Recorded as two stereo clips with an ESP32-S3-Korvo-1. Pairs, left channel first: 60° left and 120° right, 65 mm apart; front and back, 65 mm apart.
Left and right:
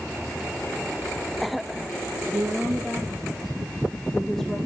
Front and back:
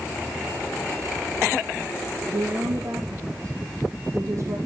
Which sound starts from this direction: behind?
A woman speaking, at 2.3 s.